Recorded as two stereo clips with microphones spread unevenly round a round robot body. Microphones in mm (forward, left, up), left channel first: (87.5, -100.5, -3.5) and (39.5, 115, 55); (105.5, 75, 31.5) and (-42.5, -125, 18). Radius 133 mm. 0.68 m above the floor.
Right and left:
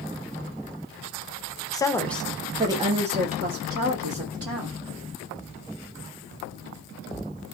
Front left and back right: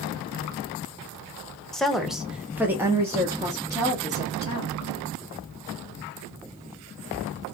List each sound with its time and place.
1.7 s a woman speaking: 40° right, 0.8 m; by 4.8 s 155° left, 1.6 m